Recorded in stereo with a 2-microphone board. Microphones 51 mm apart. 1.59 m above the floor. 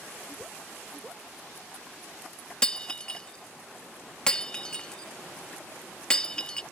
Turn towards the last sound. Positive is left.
turn(degrees=15)  # may be behind; listen again after turning